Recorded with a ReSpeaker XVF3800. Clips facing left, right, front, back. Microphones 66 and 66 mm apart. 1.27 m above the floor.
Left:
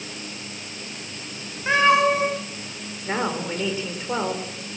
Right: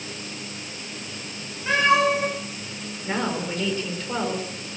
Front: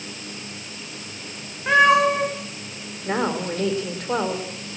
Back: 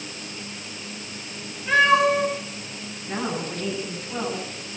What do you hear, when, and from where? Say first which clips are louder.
1.7 s a cat meowing: left 2 dB, front 2 dB; 25° left, 9 m
3.0 s a woman speaking: left 1 dB, front 5 dB; 15° left, 5.5 m